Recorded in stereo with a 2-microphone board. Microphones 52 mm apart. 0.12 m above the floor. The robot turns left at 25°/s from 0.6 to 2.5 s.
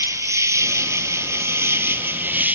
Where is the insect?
95° right, 0.8 m; by 2.5 s 140° right, 0.8 m.